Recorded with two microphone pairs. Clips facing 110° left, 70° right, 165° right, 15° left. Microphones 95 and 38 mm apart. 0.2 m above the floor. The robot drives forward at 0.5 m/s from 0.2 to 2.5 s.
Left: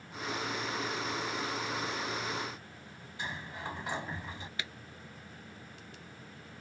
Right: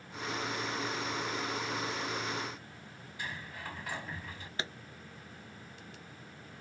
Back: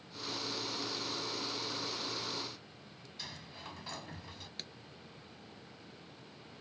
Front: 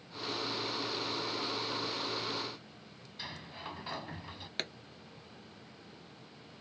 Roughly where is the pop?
Ahead.